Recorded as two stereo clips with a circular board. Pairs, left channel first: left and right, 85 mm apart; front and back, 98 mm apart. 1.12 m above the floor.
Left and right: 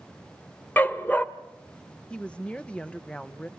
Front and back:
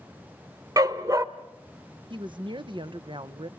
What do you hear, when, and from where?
0.8 s a dog barking: 150° left, 1.0 m
2.1 s a woman speaking: 165° left, 0.7 m